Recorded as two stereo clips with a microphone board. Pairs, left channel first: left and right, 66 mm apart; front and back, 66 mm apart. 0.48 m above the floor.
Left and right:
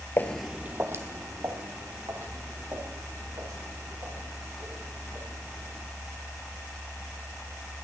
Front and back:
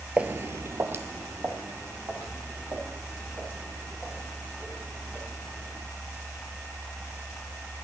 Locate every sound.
0.2 s footsteps: 120° left, 0.5 m; by 5.8 s 115° right, 8.5 m